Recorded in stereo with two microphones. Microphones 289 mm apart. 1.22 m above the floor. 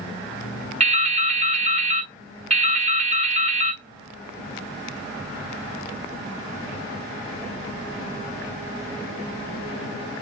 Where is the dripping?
25° right (ahead or behind), 1.0 m.